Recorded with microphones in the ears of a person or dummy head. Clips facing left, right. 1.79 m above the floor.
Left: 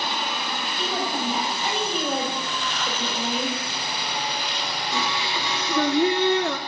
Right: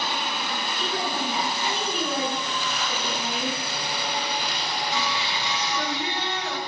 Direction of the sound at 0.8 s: 45° left (ahead or behind).